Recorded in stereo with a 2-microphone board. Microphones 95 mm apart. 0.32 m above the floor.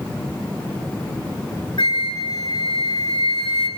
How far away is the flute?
About 2 m.